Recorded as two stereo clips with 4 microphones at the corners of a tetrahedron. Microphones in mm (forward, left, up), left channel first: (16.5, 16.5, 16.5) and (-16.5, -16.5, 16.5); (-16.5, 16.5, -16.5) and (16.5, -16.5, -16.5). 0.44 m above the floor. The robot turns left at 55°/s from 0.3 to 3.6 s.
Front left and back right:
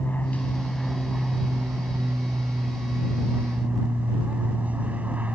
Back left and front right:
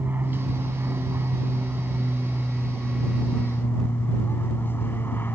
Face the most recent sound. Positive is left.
turn(degrees=170)